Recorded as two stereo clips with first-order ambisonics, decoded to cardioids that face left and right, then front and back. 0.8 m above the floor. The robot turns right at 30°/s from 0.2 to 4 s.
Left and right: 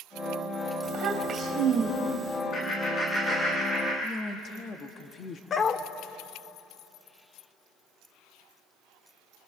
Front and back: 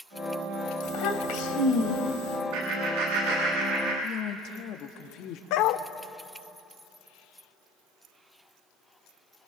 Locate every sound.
0.8 s a child speaking: 45° right, 2.5 m; by 2.4 s 5° left, 2.5 m
2.5 s laughter: 150° left, 6.5 m; by 3.9 s 170° right, 6.5 m
4.0 s a woman speaking: 30° left, 1.3 m
5.5 s a dog barking: 25° left, 0.9 m